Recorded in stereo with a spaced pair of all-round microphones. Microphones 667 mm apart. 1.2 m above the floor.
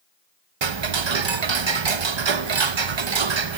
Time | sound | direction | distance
0.6 | ticking | 45° right (ahead or behind) | 0.6 m